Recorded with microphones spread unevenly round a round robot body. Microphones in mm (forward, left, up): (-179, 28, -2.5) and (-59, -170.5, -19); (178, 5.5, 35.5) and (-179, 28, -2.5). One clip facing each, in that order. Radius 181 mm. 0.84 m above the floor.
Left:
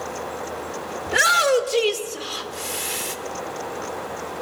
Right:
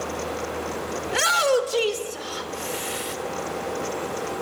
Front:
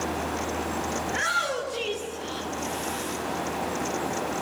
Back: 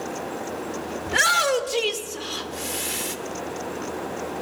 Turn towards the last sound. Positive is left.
turn(degrees=155)